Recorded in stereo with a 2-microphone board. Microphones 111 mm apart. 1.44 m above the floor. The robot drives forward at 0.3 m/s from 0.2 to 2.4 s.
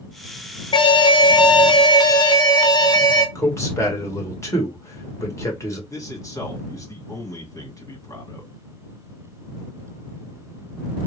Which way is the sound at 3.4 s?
25° left (ahead or behind).